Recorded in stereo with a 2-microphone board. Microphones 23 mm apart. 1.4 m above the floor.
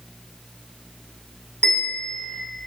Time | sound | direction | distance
1.6 | a bell | 90° left | 2 m